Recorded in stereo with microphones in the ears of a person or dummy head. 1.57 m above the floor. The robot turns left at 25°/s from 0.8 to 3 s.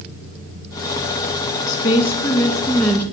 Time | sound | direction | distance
1.7 | a woman speaking | 45° left | 2 m